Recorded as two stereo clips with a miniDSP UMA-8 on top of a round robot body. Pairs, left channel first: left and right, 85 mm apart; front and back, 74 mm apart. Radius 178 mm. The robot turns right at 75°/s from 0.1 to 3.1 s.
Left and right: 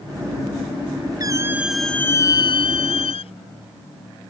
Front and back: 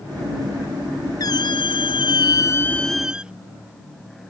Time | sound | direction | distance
1.2 | a squeak | 45° right | ?